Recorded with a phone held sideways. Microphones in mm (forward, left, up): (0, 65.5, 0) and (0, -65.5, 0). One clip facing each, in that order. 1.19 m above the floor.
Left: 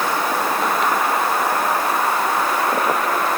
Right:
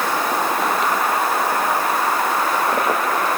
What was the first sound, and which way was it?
Only background noise.